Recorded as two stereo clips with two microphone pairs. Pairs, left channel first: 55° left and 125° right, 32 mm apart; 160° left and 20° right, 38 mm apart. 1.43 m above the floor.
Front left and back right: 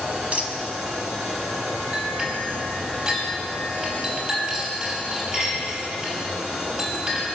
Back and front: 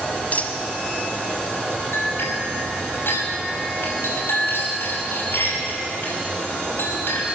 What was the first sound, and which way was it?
A dropped coin, 165° right.